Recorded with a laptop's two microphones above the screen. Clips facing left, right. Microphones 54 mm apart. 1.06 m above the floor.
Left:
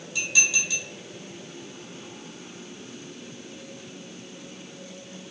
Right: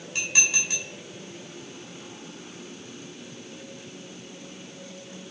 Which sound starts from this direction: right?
Dishes clattering, at 0.1 s.